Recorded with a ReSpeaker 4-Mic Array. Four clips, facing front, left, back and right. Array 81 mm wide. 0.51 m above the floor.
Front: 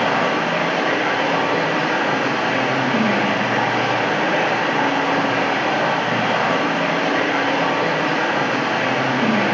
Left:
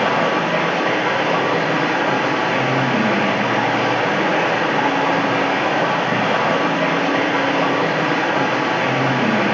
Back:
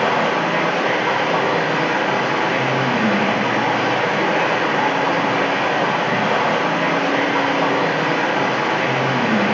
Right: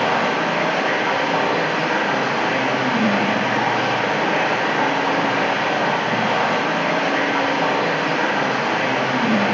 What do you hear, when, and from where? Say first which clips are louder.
0.0 s running water: left 2 dB, back 1 dB; 90° left, 3 m